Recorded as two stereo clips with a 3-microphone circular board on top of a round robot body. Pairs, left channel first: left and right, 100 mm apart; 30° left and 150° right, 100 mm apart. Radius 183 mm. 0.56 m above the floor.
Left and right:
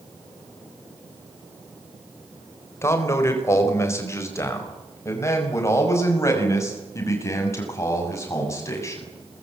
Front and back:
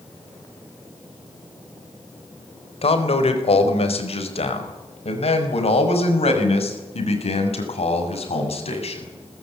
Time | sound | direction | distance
2.8 | a man speaking | 30° left | 4 m